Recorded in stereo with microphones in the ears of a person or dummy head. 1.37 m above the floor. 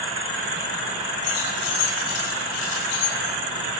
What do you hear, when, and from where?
1.2 s keys jangling: 85° left, 9.5 m